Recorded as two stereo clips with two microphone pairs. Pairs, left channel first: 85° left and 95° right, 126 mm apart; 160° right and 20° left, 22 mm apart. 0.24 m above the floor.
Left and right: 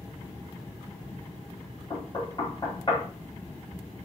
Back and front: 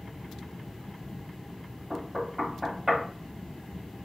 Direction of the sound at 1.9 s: 70° left.